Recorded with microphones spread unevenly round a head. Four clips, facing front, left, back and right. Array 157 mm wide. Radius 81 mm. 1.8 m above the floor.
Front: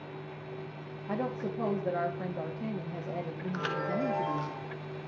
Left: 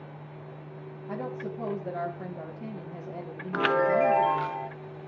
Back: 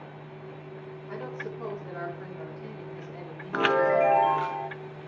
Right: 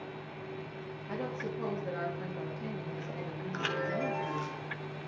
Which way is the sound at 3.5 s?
145° left.